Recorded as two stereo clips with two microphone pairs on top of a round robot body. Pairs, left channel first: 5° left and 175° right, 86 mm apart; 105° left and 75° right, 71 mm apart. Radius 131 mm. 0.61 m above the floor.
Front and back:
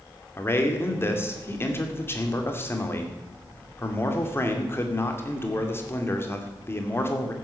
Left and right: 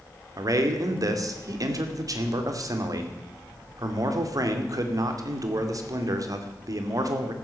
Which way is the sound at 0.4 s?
60° right.